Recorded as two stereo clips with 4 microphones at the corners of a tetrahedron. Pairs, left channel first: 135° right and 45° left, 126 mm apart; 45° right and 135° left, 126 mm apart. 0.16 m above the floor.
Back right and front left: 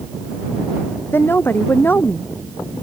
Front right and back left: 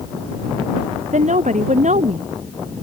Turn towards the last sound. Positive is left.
turn(degrees=150)